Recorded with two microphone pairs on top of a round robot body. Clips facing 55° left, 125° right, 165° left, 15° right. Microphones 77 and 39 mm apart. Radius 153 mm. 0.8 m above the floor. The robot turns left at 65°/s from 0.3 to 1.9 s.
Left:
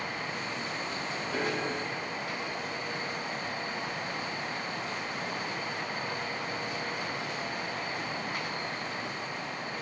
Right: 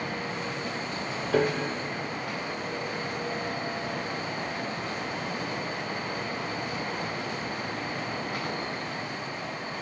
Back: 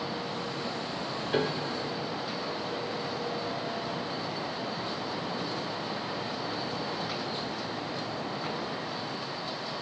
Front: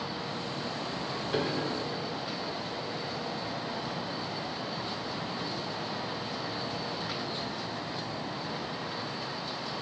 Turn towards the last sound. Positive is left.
turn(degrees=-150)